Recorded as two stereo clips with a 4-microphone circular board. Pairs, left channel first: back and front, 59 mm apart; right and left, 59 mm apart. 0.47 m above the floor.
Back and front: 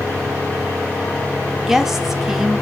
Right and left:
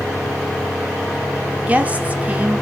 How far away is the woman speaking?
About 0.8 m.